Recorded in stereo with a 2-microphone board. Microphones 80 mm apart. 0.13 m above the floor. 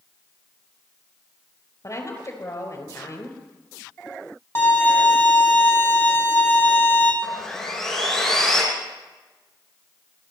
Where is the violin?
30° left (ahead or behind), 2.5 m.